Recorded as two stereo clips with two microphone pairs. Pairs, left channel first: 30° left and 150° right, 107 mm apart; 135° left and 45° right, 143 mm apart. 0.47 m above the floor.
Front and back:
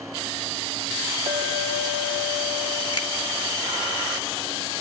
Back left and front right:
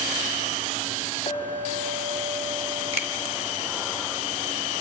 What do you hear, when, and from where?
1.3 s a clink: 175° right, 2.5 m
2.9 s a finger snap: 10° right, 2.0 m